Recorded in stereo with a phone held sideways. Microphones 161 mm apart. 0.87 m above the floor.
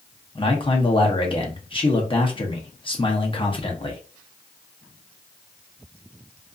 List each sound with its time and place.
0.3 s a man speaking: 30° left (ahead or behind), 0.7 m